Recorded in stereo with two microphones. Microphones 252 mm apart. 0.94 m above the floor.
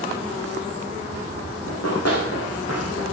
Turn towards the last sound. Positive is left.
turn(degrees=75)  # may be behind; listen again after turning